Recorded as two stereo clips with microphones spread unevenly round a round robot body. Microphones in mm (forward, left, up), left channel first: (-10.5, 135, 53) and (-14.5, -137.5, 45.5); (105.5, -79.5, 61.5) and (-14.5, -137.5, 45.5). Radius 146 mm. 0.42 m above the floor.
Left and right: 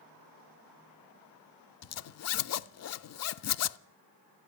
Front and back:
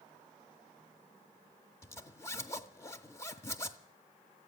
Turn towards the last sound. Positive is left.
turn(degrees=100)